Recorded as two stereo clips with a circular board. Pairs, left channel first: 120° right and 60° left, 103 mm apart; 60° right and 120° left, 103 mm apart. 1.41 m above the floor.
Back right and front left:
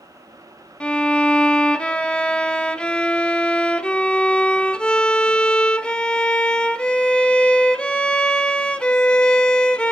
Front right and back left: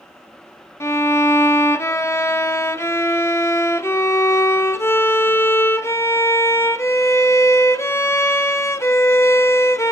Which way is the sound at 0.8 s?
55° right.